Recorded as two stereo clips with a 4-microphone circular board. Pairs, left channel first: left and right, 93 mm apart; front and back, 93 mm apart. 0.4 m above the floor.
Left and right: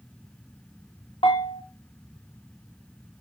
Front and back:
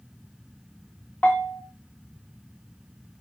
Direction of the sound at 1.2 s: 75° left.